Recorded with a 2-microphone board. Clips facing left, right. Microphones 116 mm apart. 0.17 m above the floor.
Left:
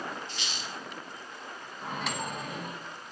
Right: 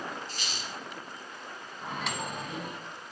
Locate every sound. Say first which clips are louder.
0.3 s a squeak: even; 45° right (ahead or behind), 1.5 m
1.8 s a microwave: left 1 dB; centre (ahead or behind), 0.8 m